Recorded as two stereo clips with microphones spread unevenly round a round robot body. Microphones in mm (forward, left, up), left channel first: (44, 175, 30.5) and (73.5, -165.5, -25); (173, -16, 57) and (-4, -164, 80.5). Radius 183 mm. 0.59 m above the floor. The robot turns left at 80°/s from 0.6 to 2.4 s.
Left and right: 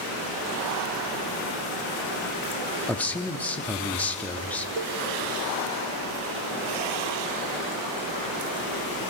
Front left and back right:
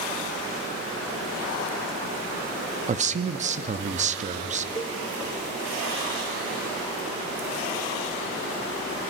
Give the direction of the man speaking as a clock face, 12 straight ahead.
5 o'clock.